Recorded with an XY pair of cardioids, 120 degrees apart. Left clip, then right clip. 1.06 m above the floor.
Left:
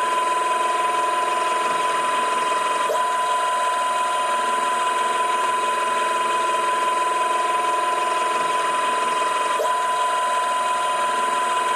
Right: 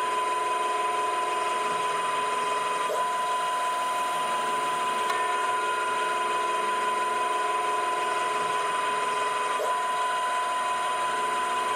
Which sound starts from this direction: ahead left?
A machine running, at 0.0 s.